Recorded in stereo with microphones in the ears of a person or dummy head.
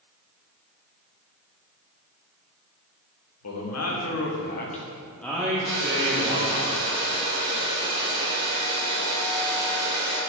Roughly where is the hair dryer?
Left.